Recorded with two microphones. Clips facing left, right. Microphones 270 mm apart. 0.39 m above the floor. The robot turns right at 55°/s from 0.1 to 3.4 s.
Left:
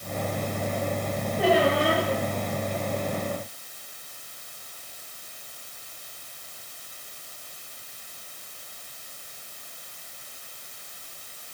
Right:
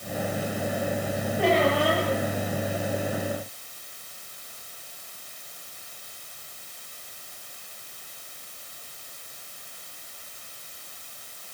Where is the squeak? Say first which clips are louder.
Left 1 dB; straight ahead, 6.5 m; by 2.1 s 35° left, 6.5 m.